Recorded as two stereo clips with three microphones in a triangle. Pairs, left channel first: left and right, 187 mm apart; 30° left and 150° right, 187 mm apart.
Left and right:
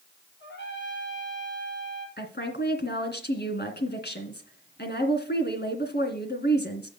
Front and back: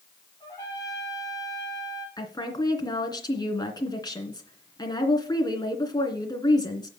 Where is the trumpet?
105° left, 3.5 m.